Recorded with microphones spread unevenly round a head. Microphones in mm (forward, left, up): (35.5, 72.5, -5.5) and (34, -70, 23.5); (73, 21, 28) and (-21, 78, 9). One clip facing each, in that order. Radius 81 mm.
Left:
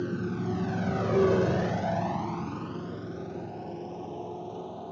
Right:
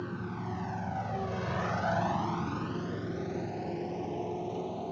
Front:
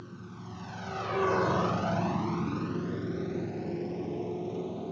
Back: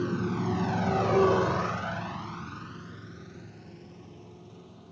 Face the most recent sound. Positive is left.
turn(degrees=-15)